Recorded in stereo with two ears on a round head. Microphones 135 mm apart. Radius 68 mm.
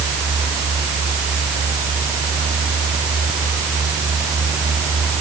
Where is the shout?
I don't hear a shout.